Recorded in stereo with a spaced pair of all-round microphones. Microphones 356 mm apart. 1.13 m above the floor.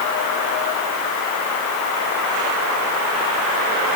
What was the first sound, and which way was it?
Only background noise.